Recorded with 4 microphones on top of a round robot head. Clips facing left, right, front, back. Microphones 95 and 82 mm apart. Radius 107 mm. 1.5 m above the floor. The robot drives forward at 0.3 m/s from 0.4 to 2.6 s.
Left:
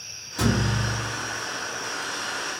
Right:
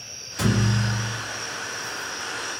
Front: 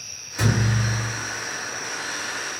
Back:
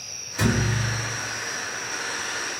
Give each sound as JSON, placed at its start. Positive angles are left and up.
{"t": 0.4, "sound": "a thud", "azimuth_deg": 95, "distance_m": 1.4}